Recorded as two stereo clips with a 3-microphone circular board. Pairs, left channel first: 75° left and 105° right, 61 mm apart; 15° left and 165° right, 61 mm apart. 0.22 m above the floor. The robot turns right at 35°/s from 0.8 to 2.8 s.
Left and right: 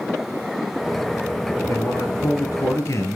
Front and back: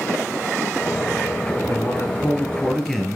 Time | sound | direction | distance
1.7 | a man speaking | 65° left | 3.5 m